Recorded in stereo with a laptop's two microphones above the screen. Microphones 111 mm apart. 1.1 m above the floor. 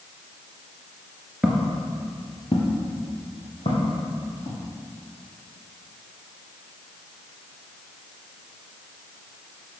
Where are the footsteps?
10° right (ahead or behind), 1.1 m; by 4.6 s 70° left (ahead or behind), 4 m.